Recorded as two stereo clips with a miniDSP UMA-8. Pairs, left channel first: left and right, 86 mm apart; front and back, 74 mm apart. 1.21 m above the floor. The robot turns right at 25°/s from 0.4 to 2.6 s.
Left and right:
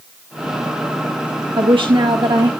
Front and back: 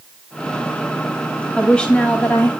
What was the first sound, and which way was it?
A woman speaking, 80° right.